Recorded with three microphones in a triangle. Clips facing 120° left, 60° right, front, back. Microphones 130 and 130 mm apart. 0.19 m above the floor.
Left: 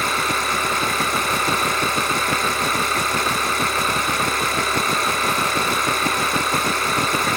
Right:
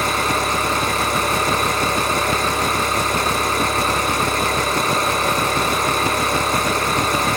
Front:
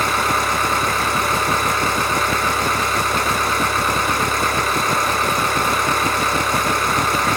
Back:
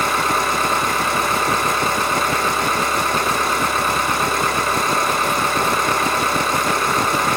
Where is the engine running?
115° right, 6.5 m.